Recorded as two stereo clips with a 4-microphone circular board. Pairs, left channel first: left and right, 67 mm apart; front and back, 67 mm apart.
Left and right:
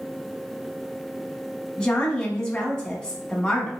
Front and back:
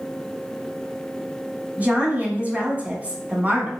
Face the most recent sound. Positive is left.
turn(degrees=155)